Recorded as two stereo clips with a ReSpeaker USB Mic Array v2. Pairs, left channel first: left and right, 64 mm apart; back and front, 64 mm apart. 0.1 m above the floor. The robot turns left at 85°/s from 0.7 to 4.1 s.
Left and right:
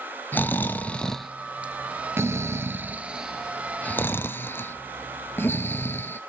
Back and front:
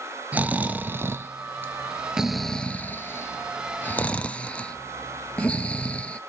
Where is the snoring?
50° left, 0.9 m; by 6.2 s 120° left, 0.9 m.